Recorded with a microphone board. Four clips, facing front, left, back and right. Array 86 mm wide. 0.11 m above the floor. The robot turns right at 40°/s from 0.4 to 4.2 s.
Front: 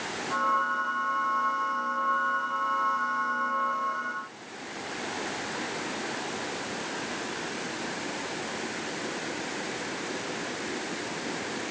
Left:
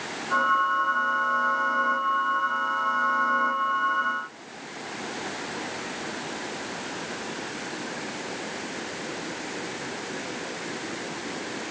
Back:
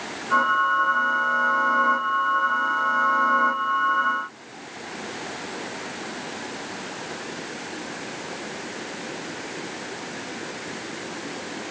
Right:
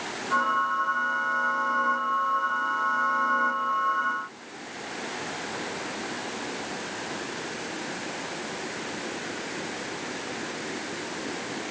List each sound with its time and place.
Only background noise.